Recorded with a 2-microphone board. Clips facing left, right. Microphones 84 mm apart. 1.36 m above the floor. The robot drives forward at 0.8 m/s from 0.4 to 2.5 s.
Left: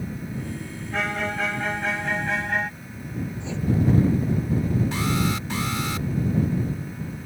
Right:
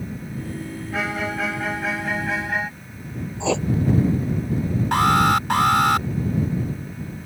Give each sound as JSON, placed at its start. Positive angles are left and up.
{"t": 0.9, "sound": "a violin", "side_deg": -5}
{"t": 3.4, "sound": "writing", "side_deg": -80}
{"t": 4.9, "sound": "an alarm", "side_deg": -65}